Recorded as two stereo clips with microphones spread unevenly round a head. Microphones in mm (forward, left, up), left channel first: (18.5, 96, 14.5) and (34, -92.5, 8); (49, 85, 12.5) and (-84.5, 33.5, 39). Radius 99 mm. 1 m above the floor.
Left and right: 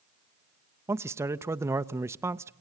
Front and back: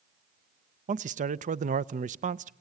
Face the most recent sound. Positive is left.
turn(degrees=-155)